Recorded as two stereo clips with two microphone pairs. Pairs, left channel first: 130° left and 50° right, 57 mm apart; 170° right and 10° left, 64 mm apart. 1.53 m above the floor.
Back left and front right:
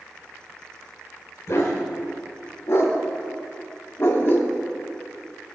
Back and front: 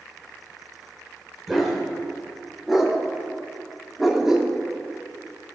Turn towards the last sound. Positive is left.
turn(degrees=95)